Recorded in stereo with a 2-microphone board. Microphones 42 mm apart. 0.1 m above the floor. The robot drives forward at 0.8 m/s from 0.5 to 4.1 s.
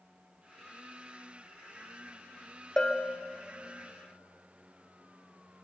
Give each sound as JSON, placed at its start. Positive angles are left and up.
{"t": 2.8, "sound": "a bell", "side_deg": 15, "distance_m": 1.0}